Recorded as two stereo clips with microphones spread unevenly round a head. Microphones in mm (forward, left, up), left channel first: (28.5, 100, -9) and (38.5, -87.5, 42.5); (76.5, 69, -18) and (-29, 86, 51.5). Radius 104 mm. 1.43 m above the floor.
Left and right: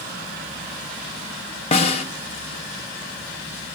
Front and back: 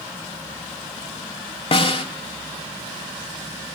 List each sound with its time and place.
1.7 s a snare drum: 30° left, 2.5 m